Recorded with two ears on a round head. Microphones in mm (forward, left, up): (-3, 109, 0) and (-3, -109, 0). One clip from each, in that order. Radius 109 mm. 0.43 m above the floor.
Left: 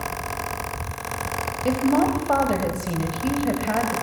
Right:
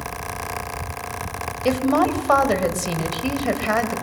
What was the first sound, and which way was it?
A woman speaking, 45° right (ahead or behind).